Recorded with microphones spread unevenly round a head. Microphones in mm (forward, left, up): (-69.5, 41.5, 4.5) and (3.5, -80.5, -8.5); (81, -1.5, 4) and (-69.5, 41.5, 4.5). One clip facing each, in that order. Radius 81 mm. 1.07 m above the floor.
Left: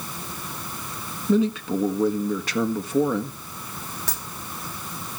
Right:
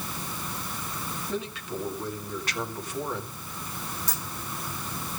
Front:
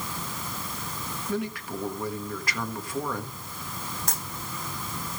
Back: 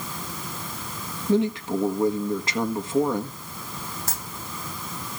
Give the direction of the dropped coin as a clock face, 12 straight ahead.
9 o'clock.